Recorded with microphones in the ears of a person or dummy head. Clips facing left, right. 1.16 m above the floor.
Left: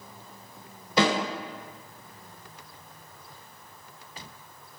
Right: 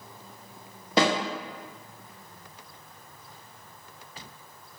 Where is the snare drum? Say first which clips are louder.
Even; 60° right (ahead or behind), 1.5 m.